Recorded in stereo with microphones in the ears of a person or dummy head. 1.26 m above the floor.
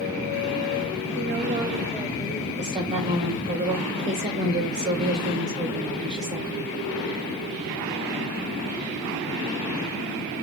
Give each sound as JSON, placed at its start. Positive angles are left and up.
{"t": 1.1, "sound": "a woman speaking", "side_deg": -50, "distance_m": 0.6}
{"t": 2.6, "sound": "a woman speaking", "side_deg": -30, "distance_m": 2.5}